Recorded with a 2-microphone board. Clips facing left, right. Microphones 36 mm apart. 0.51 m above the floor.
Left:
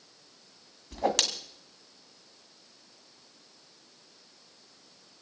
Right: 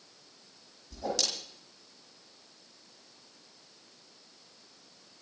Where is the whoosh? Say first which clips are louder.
Left 7 dB; 60° left (ahead or behind), 2 m.